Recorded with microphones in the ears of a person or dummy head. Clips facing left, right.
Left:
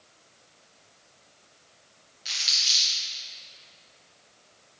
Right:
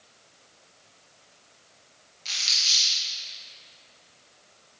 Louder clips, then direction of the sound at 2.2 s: Right 1 dB; 15° left (ahead or behind).